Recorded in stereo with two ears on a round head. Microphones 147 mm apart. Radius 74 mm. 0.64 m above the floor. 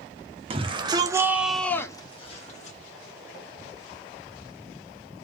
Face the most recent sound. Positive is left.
turn(degrees=45)  # may be behind; listen again after turning